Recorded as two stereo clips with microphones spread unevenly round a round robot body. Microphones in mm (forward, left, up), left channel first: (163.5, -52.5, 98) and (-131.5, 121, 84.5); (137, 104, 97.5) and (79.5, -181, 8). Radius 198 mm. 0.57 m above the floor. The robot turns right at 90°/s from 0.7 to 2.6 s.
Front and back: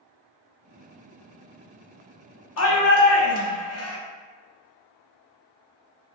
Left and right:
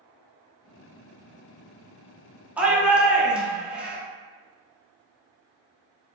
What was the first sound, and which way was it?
A shout, 45° right.